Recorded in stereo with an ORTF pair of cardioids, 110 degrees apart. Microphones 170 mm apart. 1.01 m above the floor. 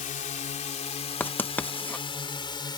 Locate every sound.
0.0 s a drone: 50° left; by 2.8 s 25° left
1.2 s writing: 10° left